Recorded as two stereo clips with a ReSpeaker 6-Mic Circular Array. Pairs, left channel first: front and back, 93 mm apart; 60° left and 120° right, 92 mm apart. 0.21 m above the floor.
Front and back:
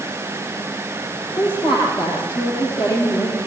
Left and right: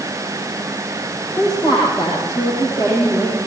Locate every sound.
1.4 s a woman speaking: 20° left, 8 m